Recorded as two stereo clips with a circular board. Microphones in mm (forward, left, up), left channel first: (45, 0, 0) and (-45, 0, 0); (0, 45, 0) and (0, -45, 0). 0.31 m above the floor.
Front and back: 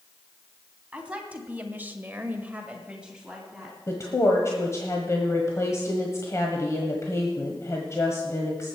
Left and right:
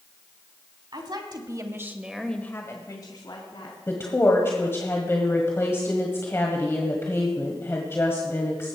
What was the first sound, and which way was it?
A woman speaking, 105° right.